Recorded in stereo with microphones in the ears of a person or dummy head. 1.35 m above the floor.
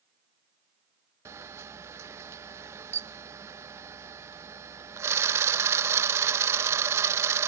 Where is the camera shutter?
15° right (ahead or behind).